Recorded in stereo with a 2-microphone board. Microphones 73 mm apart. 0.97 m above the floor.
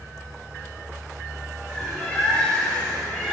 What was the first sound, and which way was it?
A bird, 15° left (ahead or behind).